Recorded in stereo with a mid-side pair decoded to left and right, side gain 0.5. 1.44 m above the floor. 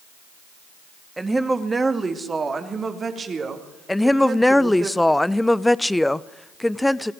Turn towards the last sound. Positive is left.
turn(degrees=5)